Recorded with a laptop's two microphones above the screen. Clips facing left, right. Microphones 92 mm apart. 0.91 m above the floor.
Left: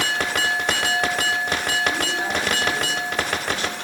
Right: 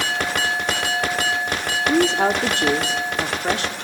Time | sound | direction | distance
1.8 | a woman speaking | 80° right | 1.9 m